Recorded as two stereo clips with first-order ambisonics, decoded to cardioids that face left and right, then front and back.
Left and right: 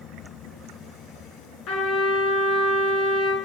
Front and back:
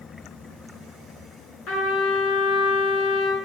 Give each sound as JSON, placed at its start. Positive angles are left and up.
{"t": 1.7, "sound": "a trumpet", "azimuth_deg": 45, "distance_m": 8.0}